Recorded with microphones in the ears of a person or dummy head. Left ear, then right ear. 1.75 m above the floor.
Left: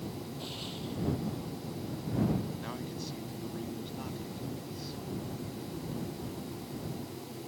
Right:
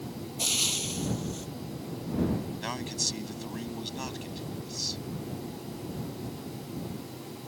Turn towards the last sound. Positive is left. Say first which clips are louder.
# right 8 dB
turn(degrees=-55)  # may be behind; listen again after turning